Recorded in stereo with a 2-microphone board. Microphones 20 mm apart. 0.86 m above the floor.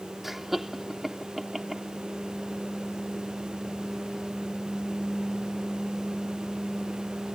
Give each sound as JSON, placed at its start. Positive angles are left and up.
{"t": 0.2, "sound": "laughter", "side_deg": -10}